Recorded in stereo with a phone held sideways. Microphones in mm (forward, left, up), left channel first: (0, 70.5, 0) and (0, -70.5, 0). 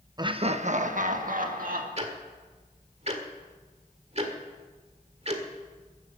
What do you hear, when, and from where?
0.2 s laughter: 30° right (ahead or behind), 0.7 m; by 1.9 s 75° right (ahead or behind), 2.5 m
2.0 s ticking: 50° right (ahead or behind), 1.8 m